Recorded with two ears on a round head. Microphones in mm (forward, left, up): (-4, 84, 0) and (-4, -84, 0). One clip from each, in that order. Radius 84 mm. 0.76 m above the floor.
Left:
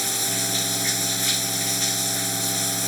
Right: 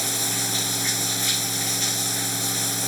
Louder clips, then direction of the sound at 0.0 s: Even; centre (ahead or behind).